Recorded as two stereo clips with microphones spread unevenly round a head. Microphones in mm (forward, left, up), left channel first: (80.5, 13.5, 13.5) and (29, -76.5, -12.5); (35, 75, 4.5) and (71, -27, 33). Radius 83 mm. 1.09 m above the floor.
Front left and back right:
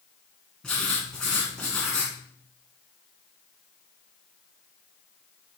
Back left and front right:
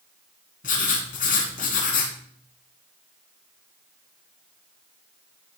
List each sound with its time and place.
0.6 s writing: 140° left, 2.5 m